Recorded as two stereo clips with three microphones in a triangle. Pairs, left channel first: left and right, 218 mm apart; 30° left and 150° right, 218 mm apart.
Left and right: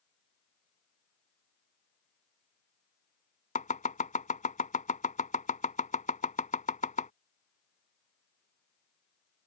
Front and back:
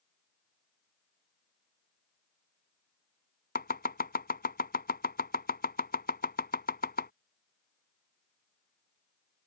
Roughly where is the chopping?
Ahead left.